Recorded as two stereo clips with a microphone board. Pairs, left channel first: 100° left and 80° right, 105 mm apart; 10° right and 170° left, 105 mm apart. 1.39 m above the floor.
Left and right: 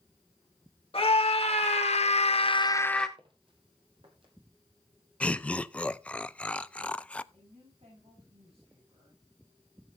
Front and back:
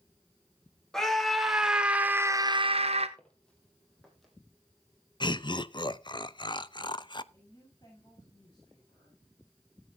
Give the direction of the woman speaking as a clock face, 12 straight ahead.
2 o'clock.